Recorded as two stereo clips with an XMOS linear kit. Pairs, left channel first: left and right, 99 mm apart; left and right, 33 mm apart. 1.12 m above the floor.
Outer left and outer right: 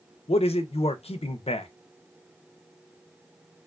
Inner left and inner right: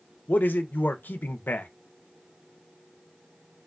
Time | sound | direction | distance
0.3 | a man speaking | 85° left | 0.5 m